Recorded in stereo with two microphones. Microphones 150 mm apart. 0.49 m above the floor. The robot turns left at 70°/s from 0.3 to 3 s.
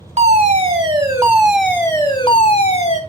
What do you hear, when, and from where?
0.2 s a fire alarm: 95° right, 2.5 m; by 3.0 s 75° left, 2.5 m